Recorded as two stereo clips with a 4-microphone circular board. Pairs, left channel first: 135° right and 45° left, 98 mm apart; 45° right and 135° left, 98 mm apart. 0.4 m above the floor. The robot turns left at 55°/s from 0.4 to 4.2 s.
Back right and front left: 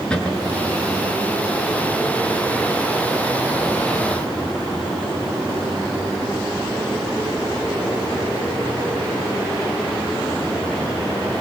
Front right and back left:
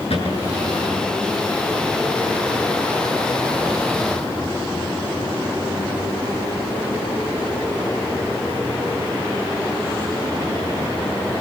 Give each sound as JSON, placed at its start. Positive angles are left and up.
{"t": 0.1, "sound": "a cupboard door", "azimuth_deg": -55, "distance_m": 7.0}